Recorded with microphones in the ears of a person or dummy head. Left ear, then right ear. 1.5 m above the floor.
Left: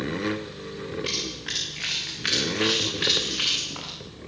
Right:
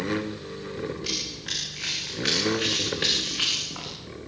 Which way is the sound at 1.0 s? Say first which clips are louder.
Left 2 dB; 15° left (ahead or behind).